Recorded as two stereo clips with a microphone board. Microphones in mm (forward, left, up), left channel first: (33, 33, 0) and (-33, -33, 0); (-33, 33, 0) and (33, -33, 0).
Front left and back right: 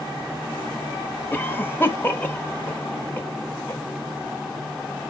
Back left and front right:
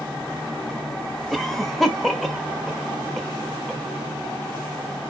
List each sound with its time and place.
1.3 s a cough: 50° left, 1.1 m